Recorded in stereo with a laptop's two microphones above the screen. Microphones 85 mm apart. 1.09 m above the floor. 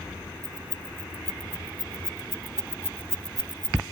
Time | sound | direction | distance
0.4 | keys jangling | 30° left (ahead or behind) | ?